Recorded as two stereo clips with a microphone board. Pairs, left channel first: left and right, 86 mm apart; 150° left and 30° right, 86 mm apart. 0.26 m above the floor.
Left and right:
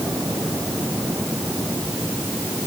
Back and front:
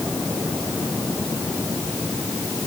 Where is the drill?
No drill in this recording.